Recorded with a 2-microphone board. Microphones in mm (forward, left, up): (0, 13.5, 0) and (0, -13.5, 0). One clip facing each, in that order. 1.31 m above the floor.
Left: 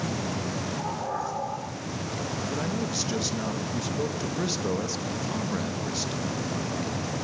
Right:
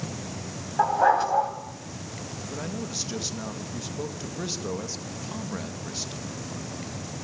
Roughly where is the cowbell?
I don't hear a cowbell.